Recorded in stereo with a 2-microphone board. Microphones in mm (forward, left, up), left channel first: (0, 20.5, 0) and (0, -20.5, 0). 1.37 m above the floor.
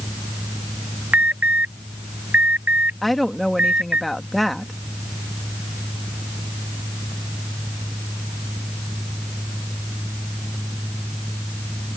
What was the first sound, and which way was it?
An alarm, 40° right (ahead or behind).